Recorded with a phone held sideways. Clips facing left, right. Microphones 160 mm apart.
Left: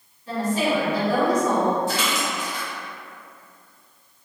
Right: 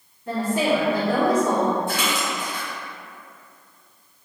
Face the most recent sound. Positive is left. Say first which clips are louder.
# even
turn(degrees=-55)  # may be behind; listen again after turning